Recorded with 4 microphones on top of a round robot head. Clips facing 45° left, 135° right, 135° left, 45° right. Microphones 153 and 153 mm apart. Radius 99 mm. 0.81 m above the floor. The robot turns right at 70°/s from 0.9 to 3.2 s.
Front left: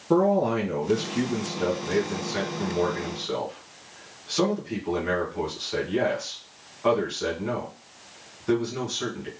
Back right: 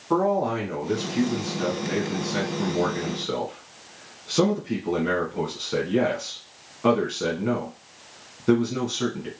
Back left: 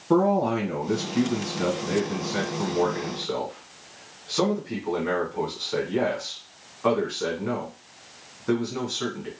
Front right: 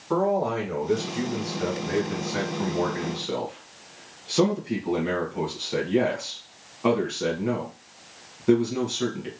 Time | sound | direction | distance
0.1 | a man speaking | 90° left | 1.4 m